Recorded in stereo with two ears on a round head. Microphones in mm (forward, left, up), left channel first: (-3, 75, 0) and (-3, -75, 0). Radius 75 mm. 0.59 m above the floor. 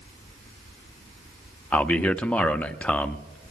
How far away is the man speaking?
About 0.6 m.